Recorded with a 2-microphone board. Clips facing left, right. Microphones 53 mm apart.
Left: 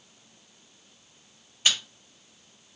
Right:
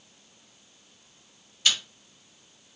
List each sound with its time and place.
1.6 s chewing: 20° left (ahead or behind), 2.5 m